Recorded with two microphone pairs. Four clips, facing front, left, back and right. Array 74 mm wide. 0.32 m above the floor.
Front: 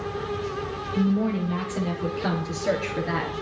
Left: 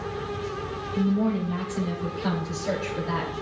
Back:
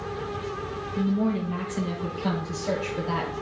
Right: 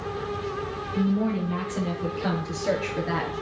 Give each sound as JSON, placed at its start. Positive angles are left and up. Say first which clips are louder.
{"t": 0.9, "sound": "a woman speaking", "louder": "left 1 dB, front 1 dB", "azimuth_deg": -25, "distance_m": 6.0}